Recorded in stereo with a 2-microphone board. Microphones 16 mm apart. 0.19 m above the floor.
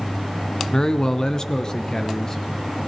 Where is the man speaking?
35° left (ahead or behind), 1.6 m.